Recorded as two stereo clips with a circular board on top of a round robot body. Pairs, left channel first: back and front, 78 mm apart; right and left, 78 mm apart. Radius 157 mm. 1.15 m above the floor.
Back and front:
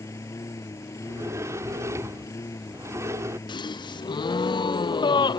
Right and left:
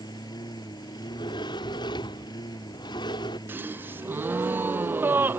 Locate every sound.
0.0 s a lawn mower: 125° right
1.0 s a sliding door: 55° right
3.5 s a gasp: 160° left